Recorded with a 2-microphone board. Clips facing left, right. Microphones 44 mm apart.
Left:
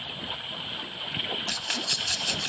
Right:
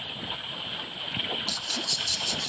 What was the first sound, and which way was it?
A rattle, 50° left (ahead or behind).